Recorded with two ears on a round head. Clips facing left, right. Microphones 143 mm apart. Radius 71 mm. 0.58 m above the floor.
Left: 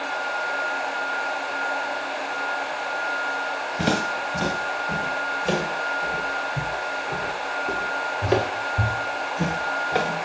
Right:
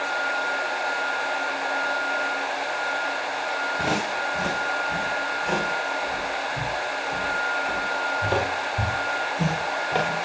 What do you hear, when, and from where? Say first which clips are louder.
3.8 s footsteps: left 3 dB; 45° left (ahead or behind), 7 m; by 10.2 s 5° left (ahead or behind), 3 m